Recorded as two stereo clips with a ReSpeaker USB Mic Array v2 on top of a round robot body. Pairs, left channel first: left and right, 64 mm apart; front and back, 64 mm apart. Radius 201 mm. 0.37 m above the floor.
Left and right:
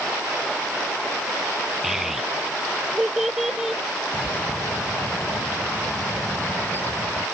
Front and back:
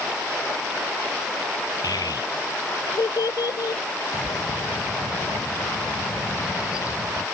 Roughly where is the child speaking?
Ahead.